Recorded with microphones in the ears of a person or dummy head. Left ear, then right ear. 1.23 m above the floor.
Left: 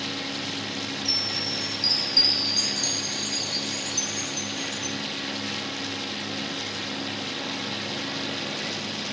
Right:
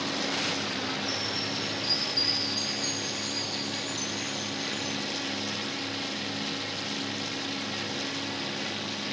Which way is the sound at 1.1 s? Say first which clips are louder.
Left 5 dB; 40° left (ahead or behind).